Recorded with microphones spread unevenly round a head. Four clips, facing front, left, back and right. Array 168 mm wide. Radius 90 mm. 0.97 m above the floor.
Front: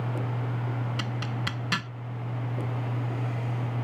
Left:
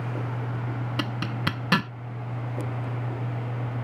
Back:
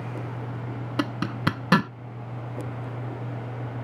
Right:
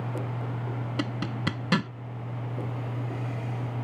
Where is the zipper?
175° right.